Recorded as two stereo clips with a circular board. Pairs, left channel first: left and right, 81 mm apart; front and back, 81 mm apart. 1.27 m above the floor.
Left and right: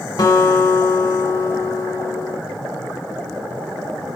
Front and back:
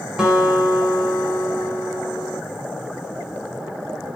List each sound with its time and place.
0.2 s a guitar: 100° left, 2.0 m